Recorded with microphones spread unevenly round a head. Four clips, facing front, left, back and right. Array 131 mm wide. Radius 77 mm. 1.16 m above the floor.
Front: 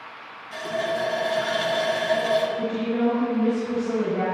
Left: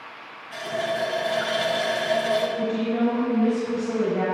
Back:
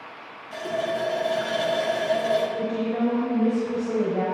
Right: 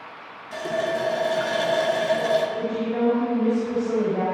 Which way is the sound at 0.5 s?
125° right.